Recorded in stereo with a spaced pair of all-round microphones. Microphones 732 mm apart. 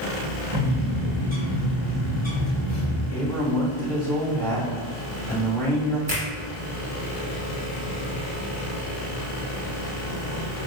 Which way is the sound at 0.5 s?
10° right (ahead or behind).